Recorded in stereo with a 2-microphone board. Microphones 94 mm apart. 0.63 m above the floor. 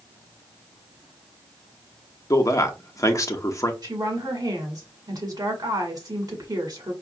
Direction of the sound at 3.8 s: 45° right (ahead or behind).